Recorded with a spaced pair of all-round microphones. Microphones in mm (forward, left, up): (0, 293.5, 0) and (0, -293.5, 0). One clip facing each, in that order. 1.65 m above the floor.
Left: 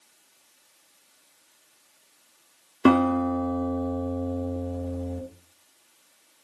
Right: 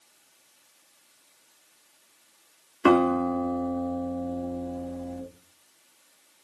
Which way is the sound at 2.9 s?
60° left (ahead or behind).